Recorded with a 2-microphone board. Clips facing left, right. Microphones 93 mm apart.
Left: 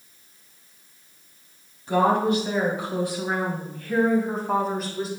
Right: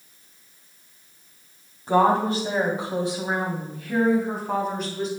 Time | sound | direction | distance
1.9 | a woman speaking | 40° right (ahead or behind) | 2 m